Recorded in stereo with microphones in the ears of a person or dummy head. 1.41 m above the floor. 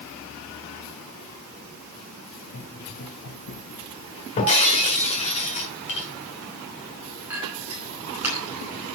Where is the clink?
10° right (ahead or behind), 5 m.